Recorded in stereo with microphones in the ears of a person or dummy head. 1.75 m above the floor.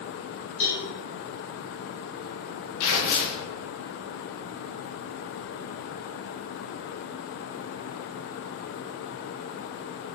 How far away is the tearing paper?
About 0.9 m.